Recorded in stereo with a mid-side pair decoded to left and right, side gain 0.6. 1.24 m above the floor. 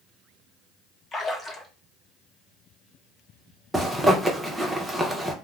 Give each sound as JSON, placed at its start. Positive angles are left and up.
{"t": 1.1, "sound": "a splash", "azimuth_deg": 25, "distance_m": 1.0}
{"t": 3.7, "sound": "a zipper", "azimuth_deg": -10, "distance_m": 0.8}